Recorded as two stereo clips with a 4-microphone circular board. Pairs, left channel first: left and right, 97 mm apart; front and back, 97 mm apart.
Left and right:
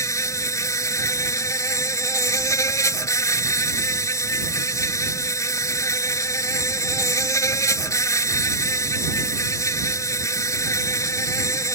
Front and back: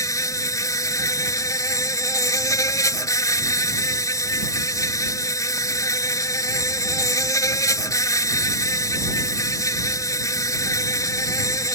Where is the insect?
45° left.